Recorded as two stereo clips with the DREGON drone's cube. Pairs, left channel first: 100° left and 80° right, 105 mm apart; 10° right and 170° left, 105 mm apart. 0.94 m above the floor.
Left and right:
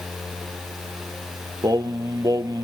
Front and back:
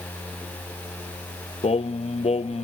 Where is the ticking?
No ticking in this recording.